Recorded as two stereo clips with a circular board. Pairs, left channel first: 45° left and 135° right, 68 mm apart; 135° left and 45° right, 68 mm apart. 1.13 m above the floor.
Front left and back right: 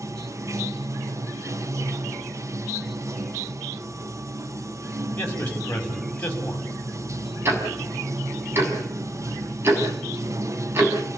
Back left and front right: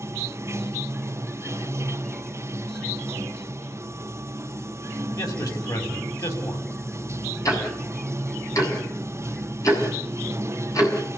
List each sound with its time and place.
0.0 s running water: 95° right, 0.9 m
5.2 s a man speaking: 110° left, 5.5 m
7.5 s ticking: 170° left, 6 m